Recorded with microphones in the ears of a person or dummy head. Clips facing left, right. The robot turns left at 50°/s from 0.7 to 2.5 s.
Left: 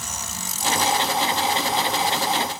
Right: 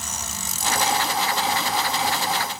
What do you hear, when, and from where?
Only background noise.